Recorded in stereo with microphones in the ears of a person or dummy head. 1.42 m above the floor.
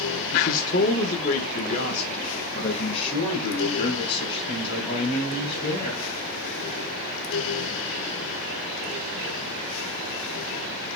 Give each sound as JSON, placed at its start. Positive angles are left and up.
{"t": 0.3, "sound": "a man speaking", "side_deg": 50, "distance_m": 1.0}